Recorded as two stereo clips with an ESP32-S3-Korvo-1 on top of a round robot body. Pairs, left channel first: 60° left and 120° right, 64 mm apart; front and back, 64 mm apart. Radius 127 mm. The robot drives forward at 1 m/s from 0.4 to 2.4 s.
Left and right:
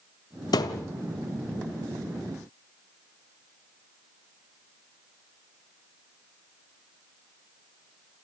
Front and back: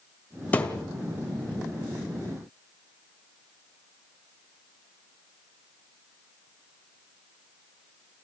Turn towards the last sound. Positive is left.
turn(degrees=130)